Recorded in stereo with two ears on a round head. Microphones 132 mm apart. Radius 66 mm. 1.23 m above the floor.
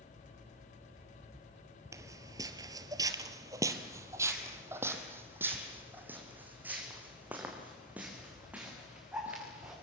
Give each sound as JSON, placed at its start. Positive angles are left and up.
{"t": 1.9, "sound": "footsteps", "side_deg": -20, "distance_m": 1.4}